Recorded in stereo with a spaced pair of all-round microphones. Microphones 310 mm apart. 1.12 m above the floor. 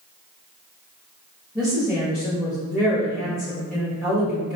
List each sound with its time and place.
1.6 s a woman speaking: 5° right (ahead or behind), 1.1 m